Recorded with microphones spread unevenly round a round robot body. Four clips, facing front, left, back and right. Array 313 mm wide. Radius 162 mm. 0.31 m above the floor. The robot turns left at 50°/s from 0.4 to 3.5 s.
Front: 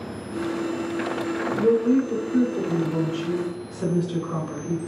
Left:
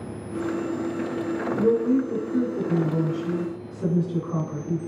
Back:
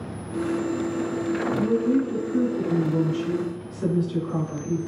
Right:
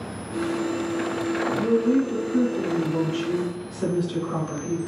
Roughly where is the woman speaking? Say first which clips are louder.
Left 1 dB, front 4 dB; ahead left.